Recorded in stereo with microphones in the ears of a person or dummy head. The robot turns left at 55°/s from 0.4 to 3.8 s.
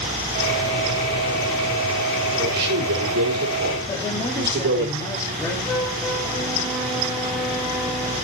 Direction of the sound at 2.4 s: 45° right.